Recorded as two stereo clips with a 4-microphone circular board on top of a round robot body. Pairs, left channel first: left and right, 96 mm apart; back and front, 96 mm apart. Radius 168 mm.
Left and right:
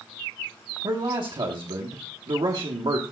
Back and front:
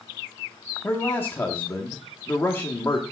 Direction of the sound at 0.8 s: 115° right.